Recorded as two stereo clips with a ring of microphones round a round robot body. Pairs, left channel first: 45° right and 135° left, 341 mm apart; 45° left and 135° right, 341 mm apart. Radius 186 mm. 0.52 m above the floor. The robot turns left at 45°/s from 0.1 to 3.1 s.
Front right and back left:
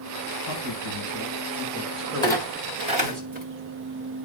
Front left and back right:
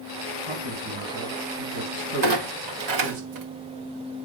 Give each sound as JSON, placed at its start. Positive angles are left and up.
{"t": 0.5, "sound": "a man speaking", "azimuth_deg": -70, "distance_m": 4.0}
{"t": 2.2, "sound": "a clunk", "azimuth_deg": -120, "distance_m": 2.0}